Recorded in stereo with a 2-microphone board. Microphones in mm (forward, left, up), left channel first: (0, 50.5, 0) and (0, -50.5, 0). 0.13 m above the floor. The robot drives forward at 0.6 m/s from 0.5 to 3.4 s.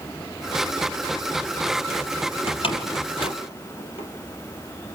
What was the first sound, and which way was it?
A door slam, 60° left (ahead or behind).